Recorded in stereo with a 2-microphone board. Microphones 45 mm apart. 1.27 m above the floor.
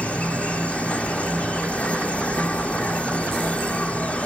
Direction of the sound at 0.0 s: 30° left (ahead or behind).